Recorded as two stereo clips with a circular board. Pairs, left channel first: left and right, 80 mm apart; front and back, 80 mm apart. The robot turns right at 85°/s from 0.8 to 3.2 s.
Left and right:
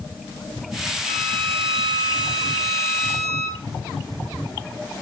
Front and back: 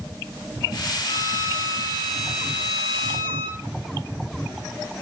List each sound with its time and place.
1.0 s a violin: 5° right, 1.4 m; by 3.6 s 175° left, 1.4 m